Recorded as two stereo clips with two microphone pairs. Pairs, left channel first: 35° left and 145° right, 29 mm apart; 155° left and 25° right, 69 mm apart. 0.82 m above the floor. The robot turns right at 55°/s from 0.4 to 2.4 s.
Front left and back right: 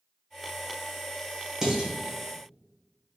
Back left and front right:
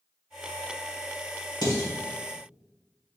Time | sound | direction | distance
1.6 | dishes clattering | 140° left | 1.5 m